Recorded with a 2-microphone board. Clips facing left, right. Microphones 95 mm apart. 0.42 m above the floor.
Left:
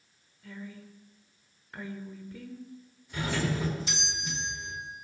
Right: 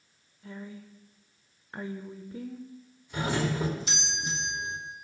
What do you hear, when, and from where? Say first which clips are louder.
0.4 s a woman speaking: right 1 dB; 30° right (ahead or behind), 0.9 m
3.1 s a doorbell: right 2 dB; 30° right (ahead or behind), 2 m